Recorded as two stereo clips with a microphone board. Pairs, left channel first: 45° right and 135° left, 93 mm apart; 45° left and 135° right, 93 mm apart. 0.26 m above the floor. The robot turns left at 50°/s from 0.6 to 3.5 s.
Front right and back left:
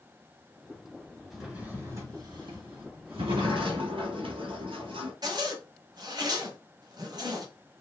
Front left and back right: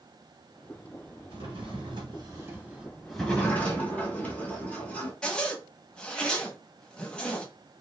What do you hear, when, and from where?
1.3 s a drawer: 135° right, 1.2 m; by 3.8 s 115° left, 1.2 m
3.1 s a sliding door: 140° left, 1.0 m; by 5.1 s 120° left, 1.0 m
5.2 s a zipper: 120° left, 0.6 m